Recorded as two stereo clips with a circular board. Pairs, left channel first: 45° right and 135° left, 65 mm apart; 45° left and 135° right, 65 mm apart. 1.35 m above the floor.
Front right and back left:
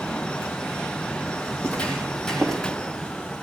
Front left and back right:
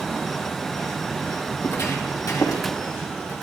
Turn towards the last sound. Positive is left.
turn(degrees=40)